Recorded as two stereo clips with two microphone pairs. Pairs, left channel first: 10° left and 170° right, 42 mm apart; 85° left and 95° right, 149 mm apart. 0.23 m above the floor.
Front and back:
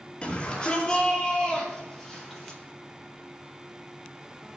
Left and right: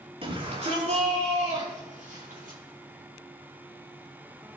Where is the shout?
50° right, 5.5 m; by 2.6 s 70° right, 7.5 m.